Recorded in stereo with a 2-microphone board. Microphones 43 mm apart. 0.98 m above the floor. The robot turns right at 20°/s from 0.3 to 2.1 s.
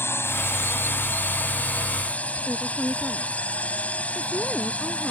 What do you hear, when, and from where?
0.0 s a drone: 110° left; by 5.1 s 145° left
2.5 s a woman speaking: 10° left (ahead or behind)